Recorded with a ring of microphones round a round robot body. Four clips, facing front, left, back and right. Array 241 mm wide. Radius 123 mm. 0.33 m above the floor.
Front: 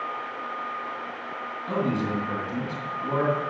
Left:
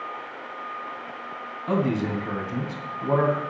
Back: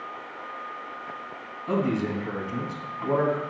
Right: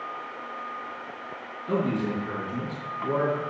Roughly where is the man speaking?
Left.